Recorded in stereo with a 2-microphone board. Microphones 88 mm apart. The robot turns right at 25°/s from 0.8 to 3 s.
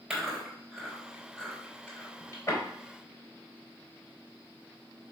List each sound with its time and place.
0.1 s chewing: 5° right (ahead or behind), 3.5 m; by 2.6 s 40° left (ahead or behind), 3.5 m